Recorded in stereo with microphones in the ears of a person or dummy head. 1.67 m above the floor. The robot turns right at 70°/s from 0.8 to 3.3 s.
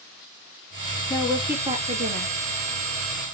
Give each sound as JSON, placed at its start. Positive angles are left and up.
{"t": 1.1, "sound": "a woman speaking", "azimuth_deg": 165, "distance_m": 2.5}